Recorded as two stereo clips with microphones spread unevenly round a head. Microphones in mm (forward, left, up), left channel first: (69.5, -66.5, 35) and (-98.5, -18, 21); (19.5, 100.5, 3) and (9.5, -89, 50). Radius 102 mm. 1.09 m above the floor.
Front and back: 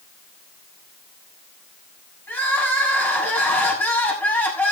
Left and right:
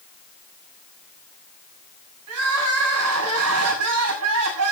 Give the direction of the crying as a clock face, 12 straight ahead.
3 o'clock.